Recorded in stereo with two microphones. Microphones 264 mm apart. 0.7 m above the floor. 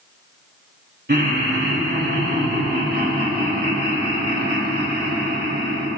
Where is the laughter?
45° right (ahead or behind), 3.5 m.